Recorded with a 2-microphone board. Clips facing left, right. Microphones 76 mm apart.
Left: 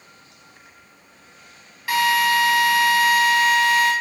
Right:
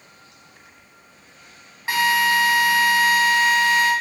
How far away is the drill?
About 0.7 m.